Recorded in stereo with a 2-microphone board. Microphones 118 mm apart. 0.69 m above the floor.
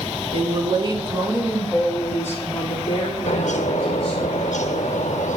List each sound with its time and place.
0.3 s a woman speaking: 50° right (ahead or behind), 1.4 m; by 4.3 s 45° left (ahead or behind), 3 m
3.3 s a bird: 75° left (ahead or behind), 0.7 m